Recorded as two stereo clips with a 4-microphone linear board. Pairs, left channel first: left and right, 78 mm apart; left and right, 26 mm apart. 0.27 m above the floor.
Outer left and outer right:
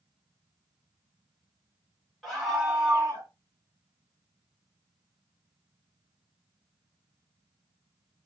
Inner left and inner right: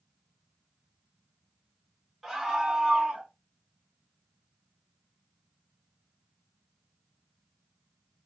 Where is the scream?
Centre (ahead or behind), 1.4 m; by 3.3 s 25° right (ahead or behind), 1.5 m.